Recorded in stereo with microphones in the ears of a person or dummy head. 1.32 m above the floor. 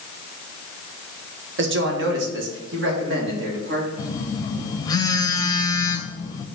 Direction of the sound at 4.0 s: 25° left (ahead or behind).